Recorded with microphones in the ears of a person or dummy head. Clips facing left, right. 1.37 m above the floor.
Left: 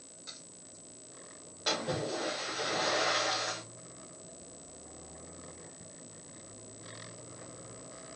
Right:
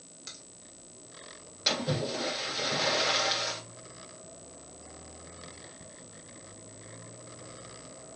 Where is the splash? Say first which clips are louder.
Right 2 dB; 30° right (ahead or behind), 1.7 m.